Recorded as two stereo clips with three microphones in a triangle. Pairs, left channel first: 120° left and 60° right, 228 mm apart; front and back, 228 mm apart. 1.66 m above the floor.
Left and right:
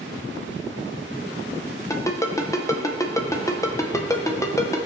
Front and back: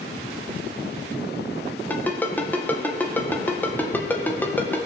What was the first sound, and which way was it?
A ringtone, 70° left.